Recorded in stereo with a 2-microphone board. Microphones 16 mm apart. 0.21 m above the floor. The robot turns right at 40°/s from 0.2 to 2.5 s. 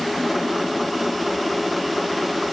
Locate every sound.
Only background noise.